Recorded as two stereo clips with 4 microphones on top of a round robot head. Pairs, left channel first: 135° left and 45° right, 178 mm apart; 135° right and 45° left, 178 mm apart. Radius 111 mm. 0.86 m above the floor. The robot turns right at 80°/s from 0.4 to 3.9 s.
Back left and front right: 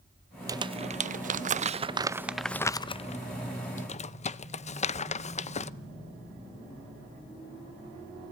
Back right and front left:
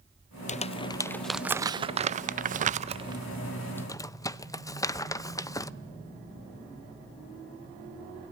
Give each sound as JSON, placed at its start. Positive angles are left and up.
{"t": 0.5, "sound": "crumpling", "azimuth_deg": -110, "distance_m": 0.6}